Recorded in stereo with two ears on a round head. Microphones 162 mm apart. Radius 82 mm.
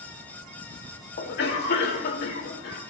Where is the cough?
60° left (ahead or behind), 1.9 m.